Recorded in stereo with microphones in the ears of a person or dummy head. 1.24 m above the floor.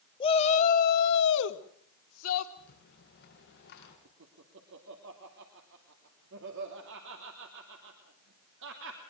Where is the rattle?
55° left (ahead or behind), 5.5 m.